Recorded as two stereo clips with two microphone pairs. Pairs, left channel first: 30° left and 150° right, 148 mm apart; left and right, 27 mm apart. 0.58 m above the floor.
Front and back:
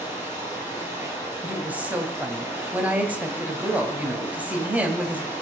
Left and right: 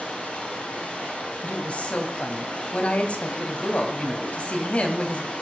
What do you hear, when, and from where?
0.0 s running water: 135° left, 9 m
1.4 s a woman speaking: 130° left, 2.5 m